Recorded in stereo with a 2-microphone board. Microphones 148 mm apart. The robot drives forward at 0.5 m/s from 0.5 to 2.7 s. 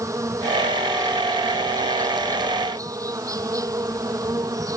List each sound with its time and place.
0.0 s an insect: 20° right (ahead or behind); by 4.8 s 25° right (ahead or behind)